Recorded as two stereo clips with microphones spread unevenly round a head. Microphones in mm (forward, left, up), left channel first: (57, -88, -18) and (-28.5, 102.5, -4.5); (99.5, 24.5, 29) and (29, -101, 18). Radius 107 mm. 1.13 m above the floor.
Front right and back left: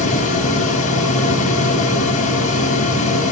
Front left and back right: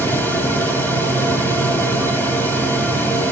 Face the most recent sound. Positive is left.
turn(degrees=-15)